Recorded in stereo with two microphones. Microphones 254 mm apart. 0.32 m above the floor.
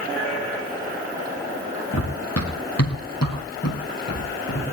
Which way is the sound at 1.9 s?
75° left (ahead or behind).